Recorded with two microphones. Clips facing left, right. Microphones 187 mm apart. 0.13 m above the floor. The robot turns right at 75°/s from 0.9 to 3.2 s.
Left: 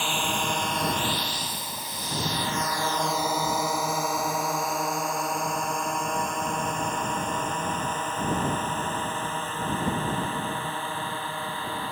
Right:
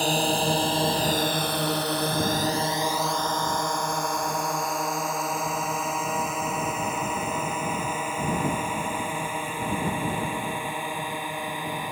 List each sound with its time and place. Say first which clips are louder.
0.0 s a drone: right 6 dB; 40° right (ahead or behind); by 11.9 s 15° right (ahead or behind)